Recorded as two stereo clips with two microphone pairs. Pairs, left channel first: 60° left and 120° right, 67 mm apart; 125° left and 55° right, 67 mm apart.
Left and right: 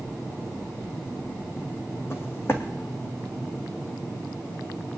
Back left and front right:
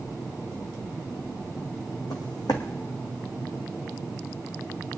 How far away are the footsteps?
About 2.0 m.